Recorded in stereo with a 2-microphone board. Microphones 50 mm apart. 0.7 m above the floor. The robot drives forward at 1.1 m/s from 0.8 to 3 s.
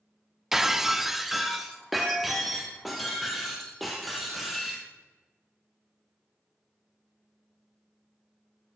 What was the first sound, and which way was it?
Breaking glass, 10° right (ahead or behind).